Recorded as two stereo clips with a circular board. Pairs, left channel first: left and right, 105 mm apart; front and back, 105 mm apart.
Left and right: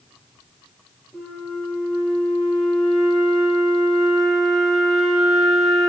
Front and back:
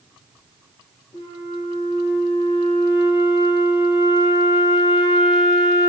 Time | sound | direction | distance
1.1 | a flute | 5° left | 2.5 m